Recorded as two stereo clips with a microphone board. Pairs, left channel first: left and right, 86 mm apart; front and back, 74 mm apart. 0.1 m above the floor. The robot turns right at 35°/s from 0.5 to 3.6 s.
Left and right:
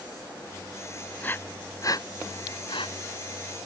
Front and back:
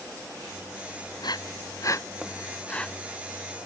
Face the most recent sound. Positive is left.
turn(degrees=105)